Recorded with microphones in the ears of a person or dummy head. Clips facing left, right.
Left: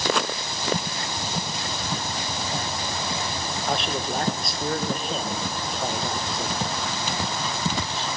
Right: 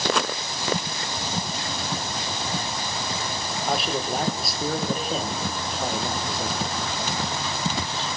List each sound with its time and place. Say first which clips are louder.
3.7 s a man speaking: right 1 dB; centre (ahead or behind), 1.3 m